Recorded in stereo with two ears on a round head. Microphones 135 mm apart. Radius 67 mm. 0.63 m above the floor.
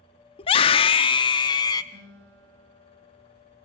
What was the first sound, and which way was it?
A scream, 35° left (ahead or behind).